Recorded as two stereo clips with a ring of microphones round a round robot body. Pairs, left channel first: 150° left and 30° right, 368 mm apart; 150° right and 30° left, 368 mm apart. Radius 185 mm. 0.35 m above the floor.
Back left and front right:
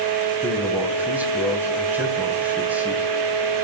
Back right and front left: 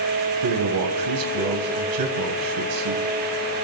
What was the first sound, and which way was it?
A man speaking, 55° left.